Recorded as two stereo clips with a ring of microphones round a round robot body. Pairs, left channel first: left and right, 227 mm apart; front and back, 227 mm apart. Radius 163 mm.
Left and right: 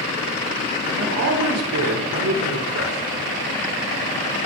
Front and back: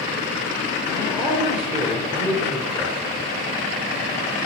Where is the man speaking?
95° right, 3 m.